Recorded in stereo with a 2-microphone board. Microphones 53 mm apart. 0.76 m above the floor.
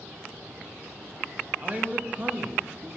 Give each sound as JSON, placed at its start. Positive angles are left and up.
{"t": 1.6, "sound": "a man speaking", "side_deg": -30, "distance_m": 1.1}